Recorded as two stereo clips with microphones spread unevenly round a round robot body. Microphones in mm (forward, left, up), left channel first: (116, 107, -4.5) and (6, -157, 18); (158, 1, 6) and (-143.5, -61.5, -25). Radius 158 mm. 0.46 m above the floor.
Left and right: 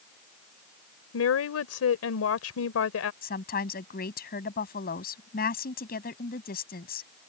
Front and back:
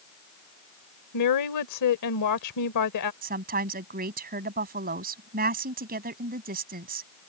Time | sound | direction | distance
1.1 | a woman speaking | 45° left | ?
3.2 | a woman speaking | 130° left | ?